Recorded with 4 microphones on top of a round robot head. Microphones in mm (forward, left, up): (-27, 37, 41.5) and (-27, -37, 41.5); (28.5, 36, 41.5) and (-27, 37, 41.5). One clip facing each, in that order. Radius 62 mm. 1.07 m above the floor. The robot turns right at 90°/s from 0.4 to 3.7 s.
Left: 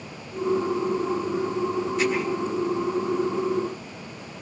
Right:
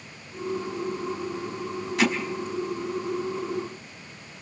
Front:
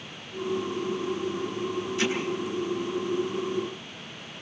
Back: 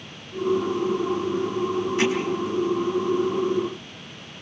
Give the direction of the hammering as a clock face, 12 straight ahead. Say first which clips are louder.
Right 2 dB, back 5 dB; 4 o'clock.